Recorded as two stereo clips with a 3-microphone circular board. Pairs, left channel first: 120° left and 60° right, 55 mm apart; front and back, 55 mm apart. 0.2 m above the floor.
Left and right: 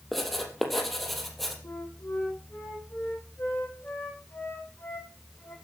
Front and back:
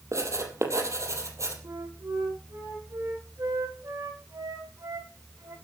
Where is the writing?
155° right, 4 m.